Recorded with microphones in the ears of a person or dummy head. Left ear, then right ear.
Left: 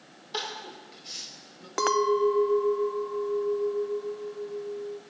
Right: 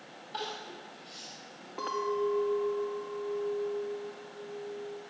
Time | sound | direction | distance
0.3 | crying | 50° left (ahead or behind) | 4 m
1.8 | a clink | 65° left (ahead or behind) | 0.6 m